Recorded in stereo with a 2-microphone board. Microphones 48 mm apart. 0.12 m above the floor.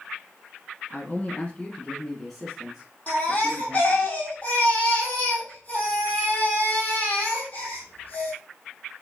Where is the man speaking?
40° left (ahead or behind), 1.3 m; by 4.1 s 25° right (ahead or behind), 2 m.